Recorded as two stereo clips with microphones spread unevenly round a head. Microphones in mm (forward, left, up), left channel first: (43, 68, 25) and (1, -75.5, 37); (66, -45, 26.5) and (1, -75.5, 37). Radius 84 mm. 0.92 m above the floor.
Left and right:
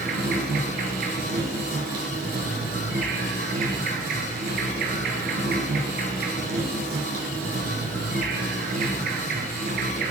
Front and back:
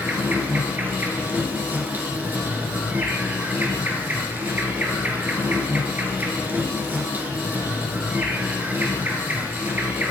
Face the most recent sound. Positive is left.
turn(degrees=-100)